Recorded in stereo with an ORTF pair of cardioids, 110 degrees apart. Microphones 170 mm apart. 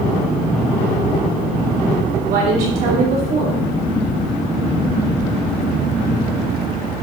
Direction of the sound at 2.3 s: 70° right.